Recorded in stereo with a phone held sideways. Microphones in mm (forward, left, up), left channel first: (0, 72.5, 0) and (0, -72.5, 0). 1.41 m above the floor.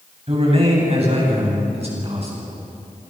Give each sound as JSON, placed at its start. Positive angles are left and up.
{"t": 0.3, "sound": "a man speaking", "side_deg": -45, "distance_m": 8.5}